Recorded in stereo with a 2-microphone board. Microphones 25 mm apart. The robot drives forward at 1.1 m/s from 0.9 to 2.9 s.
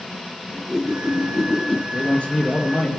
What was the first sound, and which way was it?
A whoosh, centre (ahead or behind).